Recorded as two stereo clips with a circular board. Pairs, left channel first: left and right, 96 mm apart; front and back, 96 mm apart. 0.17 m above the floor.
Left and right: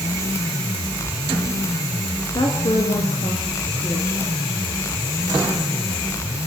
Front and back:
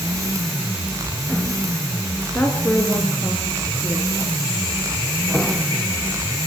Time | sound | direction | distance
2.3 | a woman speaking | 70° left | 3 m